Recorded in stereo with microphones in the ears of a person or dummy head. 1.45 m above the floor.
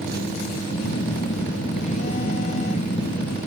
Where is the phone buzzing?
45° left (ahead or behind).